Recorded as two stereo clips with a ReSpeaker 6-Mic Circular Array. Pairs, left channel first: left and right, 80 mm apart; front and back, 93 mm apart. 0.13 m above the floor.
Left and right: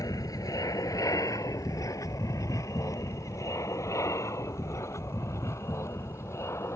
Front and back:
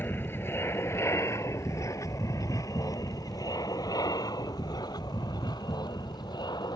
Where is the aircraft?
65° left; by 6.8 s 35° left.